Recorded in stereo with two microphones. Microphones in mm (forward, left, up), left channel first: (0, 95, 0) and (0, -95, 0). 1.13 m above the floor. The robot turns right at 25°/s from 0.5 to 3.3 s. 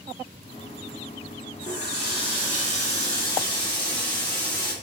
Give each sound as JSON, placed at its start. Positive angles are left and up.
{"t": 1.6, "sound": "a running tap", "azimuth_deg": 115, "distance_m": 1.8}